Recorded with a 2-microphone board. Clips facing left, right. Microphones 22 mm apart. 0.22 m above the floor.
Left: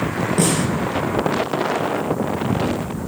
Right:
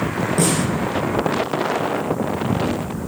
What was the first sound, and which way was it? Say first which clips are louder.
A snare drum: even; centre (ahead or behind).